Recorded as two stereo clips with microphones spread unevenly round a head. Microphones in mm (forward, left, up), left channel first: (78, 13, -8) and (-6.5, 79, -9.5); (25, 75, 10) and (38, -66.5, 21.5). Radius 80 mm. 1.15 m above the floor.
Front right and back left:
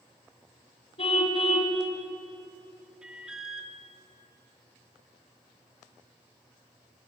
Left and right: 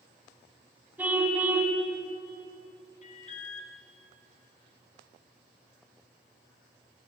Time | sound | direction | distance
1.0 | a car horn | 10° right | 4 m
3.0 | an alarm | 60° left | 3.5 m